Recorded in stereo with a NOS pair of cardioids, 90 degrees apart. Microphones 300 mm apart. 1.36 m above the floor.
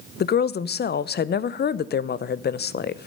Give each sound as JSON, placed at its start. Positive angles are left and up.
{"t": 0.2, "sound": "a woman speaking", "azimuth_deg": 35, "distance_m": 0.6}